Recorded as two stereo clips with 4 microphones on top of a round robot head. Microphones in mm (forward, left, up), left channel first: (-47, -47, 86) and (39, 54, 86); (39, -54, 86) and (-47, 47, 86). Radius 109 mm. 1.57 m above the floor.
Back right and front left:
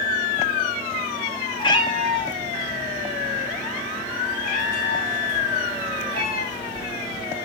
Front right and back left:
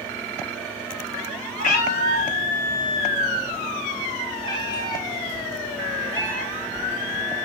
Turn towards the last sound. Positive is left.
turn(degrees=-135)